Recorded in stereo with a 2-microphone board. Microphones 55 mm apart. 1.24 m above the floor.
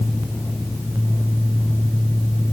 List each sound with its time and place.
Only background noise.